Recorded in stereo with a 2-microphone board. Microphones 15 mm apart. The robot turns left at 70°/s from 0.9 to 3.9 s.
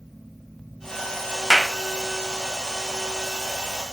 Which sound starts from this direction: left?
A clap, at 1.5 s.